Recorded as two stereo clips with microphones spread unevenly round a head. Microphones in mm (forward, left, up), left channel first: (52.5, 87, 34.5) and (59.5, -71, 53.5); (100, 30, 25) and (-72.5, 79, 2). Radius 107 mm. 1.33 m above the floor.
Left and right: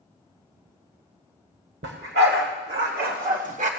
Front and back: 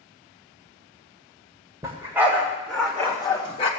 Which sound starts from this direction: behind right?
A dog barking, at 1.8 s.